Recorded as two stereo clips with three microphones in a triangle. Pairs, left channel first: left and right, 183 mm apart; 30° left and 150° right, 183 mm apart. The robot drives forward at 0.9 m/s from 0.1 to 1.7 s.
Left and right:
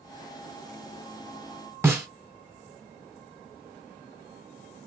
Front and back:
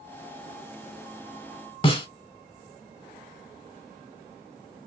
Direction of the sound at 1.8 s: 15° right.